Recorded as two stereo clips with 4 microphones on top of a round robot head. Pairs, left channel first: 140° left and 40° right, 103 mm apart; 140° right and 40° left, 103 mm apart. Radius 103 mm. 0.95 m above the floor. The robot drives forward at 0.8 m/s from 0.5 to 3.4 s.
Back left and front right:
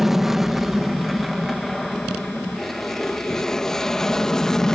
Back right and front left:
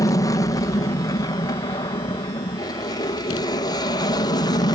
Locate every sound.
0.0 s an aircraft: 125° right; by 4.8 s 135° right